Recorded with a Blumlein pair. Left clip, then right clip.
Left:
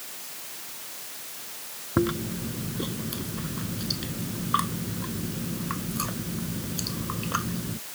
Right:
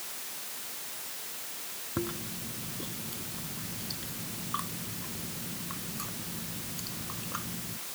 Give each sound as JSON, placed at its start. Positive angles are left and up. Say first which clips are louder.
{"t": 2.0, "sound": "chewing", "louder": "left 10 dB", "azimuth_deg": 65}